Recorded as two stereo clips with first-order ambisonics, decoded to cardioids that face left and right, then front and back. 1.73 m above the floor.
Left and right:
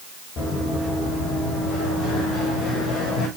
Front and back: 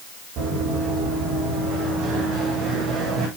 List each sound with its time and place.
0.4 s running footsteps: 145° left, 5.5 m; by 3.3 s 130° left, 6 m